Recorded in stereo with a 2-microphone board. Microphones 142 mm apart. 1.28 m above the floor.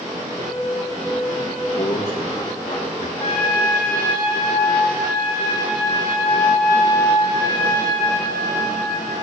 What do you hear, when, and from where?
0.4 s a piano: 50° right (ahead or behind), 6.5 m
1.8 s a man speaking: 55° left (ahead or behind), 2 m
3.2 s a trumpet: 45° left (ahead or behind), 2.5 m